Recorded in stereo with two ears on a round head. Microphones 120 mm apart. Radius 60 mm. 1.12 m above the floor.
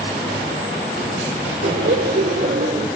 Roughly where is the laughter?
Right.